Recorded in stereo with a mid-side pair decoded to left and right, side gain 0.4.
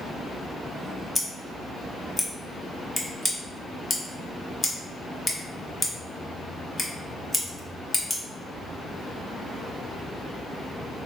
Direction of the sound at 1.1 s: 10° left.